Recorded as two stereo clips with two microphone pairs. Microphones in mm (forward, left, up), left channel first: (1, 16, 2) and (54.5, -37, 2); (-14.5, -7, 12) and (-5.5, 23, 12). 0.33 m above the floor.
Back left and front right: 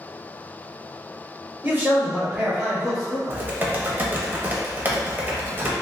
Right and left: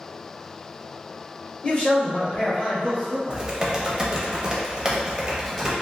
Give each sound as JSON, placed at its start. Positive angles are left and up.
{"t": 1.6, "sound": "a man speaking", "azimuth_deg": -85, "distance_m": 1.1}
{"t": 3.3, "sound": "typing on a keyboard", "azimuth_deg": 10, "distance_m": 0.5}